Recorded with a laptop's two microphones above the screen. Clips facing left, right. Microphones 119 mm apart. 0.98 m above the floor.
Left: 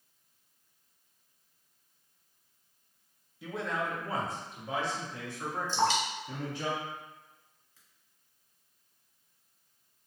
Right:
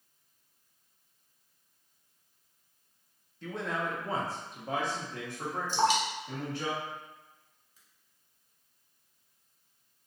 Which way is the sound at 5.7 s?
15° right (ahead or behind).